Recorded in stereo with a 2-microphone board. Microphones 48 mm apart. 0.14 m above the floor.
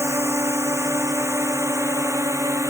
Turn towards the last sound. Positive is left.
turn(degrees=-75)  # may be behind; listen again after turning